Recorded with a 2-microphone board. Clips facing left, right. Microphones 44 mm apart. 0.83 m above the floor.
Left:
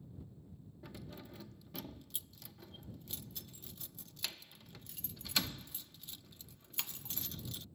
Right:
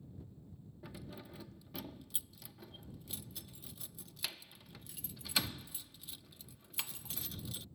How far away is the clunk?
No clunk in this recording.